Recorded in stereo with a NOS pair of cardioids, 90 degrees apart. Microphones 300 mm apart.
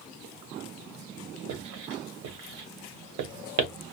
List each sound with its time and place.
1.5 s writing: 70° right, 1.1 m